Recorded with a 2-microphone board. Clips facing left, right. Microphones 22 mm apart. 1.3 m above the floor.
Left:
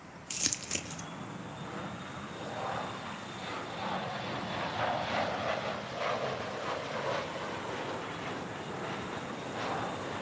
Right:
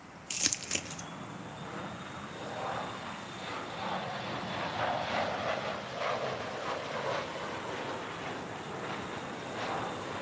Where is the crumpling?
10° right (ahead or behind), 0.6 m.